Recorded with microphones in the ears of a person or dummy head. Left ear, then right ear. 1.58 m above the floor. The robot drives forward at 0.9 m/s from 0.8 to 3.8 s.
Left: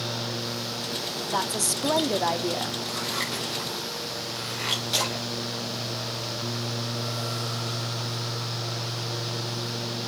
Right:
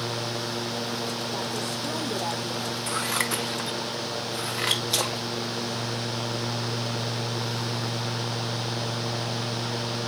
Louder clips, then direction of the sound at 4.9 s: Even; 10° right (ahead or behind).